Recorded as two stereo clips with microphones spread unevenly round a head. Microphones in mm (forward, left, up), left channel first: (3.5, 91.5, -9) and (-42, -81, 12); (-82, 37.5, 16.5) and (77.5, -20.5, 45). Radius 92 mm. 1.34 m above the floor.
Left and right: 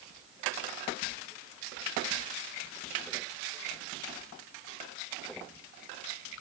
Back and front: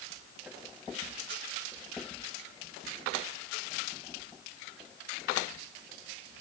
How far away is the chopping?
I don't hear chopping.